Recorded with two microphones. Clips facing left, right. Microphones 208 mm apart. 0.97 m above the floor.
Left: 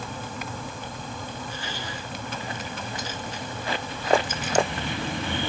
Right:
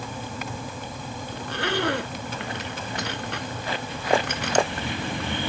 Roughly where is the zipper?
Right.